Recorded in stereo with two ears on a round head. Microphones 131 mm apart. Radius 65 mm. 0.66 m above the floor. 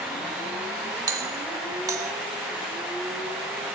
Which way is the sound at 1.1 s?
25° right (ahead or behind).